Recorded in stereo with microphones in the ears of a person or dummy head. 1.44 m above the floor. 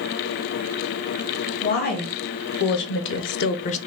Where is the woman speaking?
45° left (ahead or behind), 1.3 m; by 3.8 s 35° left (ahead or behind), 0.5 m.